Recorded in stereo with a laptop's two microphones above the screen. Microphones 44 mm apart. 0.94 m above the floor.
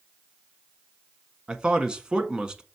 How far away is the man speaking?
About 1.4 m.